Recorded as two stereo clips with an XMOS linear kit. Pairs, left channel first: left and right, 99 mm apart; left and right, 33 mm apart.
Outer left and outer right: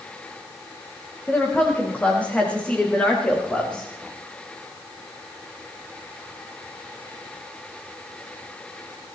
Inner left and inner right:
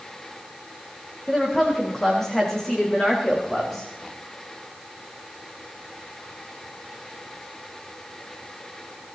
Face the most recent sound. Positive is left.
turn(degrees=10)  # may be behind; listen again after turning